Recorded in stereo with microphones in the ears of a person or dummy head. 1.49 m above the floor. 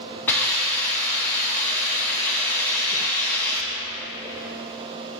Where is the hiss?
10° left (ahead or behind), 3 m.